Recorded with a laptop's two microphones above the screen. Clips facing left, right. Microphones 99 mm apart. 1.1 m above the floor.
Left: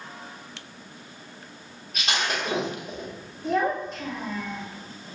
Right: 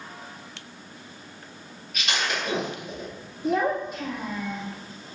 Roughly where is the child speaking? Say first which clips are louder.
Right 1 dB; centre.